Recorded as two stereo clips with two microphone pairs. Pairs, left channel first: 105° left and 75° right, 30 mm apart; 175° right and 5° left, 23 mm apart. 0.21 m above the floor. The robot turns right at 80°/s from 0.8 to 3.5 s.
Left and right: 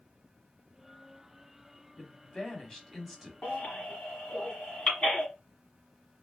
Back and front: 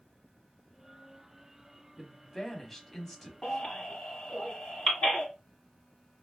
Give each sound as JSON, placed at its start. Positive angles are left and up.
{"t": 2.0, "sound": "a woman speaking", "azimuth_deg": 95, "distance_m": 1.0}
{"t": 3.4, "sound": "a baby crying", "azimuth_deg": 140, "distance_m": 1.5}